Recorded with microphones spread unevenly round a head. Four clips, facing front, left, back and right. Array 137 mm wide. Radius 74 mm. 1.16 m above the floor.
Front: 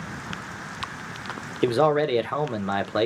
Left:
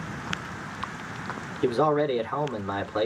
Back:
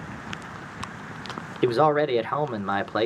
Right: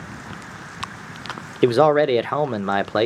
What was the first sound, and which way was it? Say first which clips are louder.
A man speaking: right 8 dB, even; 80° right.